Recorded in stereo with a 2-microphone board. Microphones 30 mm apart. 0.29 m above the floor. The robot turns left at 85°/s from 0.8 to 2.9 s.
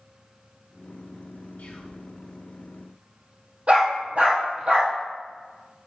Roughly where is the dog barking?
Right.